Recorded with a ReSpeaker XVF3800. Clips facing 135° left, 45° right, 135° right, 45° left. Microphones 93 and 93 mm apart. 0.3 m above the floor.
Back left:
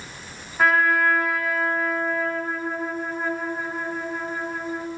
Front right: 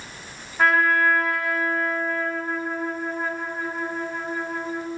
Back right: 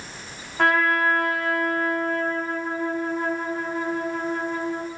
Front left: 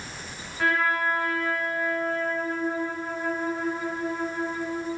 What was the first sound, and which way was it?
A trumpet, 135° right.